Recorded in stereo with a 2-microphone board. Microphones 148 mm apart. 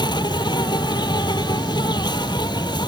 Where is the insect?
30° left (ahead or behind).